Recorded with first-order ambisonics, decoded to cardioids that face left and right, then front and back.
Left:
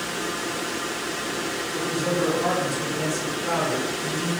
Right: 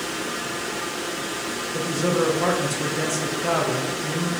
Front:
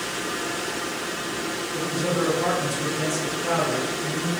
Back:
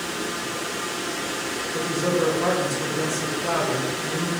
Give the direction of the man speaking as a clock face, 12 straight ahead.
3 o'clock.